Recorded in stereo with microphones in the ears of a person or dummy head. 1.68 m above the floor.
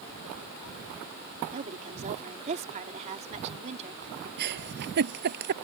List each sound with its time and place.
1.5 s a woman speaking: 40° right (ahead or behind)
4.4 s a giggle: 60° right (ahead or behind)